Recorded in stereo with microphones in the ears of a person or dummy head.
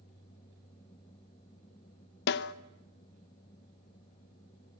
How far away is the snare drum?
About 0.7 m.